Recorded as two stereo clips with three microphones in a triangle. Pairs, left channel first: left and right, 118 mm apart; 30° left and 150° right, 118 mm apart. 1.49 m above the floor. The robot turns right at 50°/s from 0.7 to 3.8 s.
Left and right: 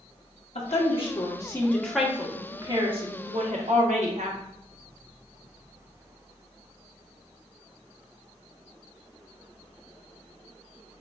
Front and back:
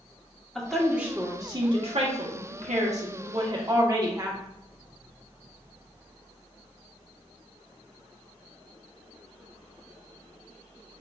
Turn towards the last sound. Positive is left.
turn(degrees=-90)